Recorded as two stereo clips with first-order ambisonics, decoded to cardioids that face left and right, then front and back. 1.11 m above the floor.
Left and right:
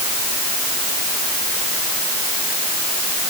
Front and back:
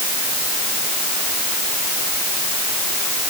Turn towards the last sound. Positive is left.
No sound to turn to.